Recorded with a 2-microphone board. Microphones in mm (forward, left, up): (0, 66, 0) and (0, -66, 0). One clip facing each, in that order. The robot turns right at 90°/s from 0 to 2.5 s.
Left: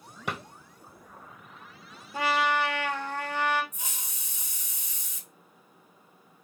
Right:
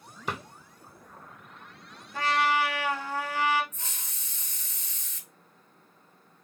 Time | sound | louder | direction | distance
0.3 | a drawer | even | 70° left (ahead or behind) | 1.4 m
2.1 | a trumpet | even | 155° left | 0.6 m
3.7 | a hiss | left 2 dB | 10° left (ahead or behind) | 0.7 m